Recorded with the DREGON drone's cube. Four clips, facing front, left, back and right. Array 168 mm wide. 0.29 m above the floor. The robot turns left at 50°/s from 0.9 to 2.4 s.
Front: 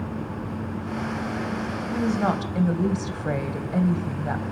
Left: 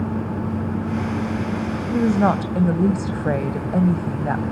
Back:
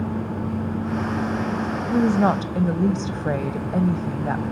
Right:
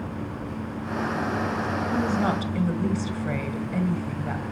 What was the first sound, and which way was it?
A woman speaking, 135° left.